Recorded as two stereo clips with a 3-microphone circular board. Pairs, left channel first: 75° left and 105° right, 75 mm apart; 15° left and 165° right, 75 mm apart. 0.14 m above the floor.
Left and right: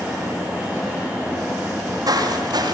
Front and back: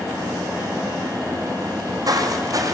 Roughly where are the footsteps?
Behind right.